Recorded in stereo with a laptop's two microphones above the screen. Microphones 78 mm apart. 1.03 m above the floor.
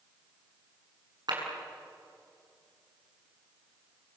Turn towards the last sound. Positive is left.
turn(degrees=-60)  # may be behind; listen again after turning